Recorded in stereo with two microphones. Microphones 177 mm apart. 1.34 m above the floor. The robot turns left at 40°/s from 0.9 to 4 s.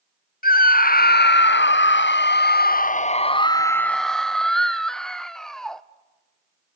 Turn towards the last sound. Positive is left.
turn(degrees=5)